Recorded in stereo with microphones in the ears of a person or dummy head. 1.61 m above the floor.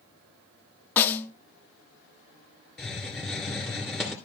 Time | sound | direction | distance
1.0 | a snare drum | 15° left (ahead or behind) | 0.7 m
2.8 | a hiss | 5° left (ahead or behind) | 3 m